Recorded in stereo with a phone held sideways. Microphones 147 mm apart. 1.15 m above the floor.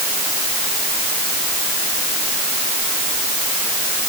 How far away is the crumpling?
No crumpling in this recording.